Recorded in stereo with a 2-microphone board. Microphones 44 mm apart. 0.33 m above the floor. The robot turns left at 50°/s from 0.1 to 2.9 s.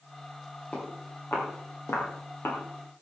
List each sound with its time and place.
0.7 s footsteps: 35° left (ahead or behind), 9.5 m; by 2.6 s 55° left (ahead or behind), 7 m